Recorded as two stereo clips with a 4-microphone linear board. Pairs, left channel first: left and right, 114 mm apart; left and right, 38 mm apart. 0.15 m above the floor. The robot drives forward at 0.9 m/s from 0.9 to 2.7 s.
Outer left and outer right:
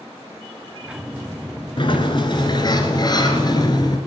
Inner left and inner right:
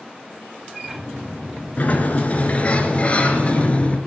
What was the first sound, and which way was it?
A sliding door, 50° left (ahead or behind).